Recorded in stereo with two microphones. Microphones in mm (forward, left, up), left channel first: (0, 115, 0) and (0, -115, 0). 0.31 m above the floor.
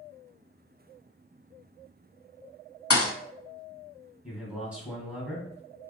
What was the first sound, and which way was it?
A thud, 85° left.